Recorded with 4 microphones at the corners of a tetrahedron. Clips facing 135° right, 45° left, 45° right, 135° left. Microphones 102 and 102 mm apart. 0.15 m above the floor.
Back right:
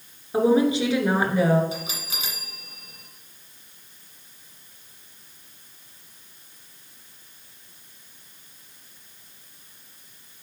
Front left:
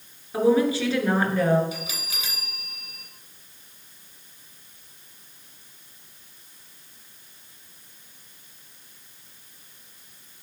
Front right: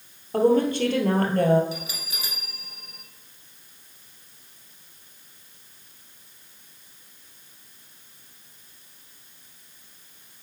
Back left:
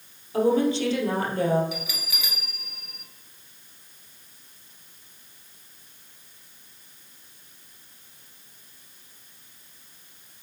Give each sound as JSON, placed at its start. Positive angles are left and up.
{"t": 0.3, "sound": "a woman speaking", "azimuth_deg": -75, "distance_m": 2.0}
{"t": 1.7, "sound": "a bell", "azimuth_deg": -85, "distance_m": 2.0}